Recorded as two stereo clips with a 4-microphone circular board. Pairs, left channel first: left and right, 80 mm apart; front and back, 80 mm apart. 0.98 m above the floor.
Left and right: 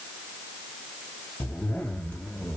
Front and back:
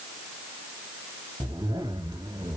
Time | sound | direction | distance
1.4 | a zipper | 165° left | 2.5 m